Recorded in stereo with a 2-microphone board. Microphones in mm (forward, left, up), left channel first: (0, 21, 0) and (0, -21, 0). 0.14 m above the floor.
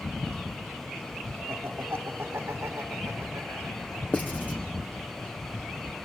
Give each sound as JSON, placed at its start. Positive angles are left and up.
{"t": 1.5, "sound": "laughter", "side_deg": -60, "distance_m": 5.0}
{"t": 4.1, "sound": "writing", "side_deg": 40, "distance_m": 2.5}